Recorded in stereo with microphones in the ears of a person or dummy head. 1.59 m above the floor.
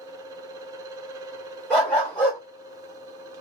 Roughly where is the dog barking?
Centre.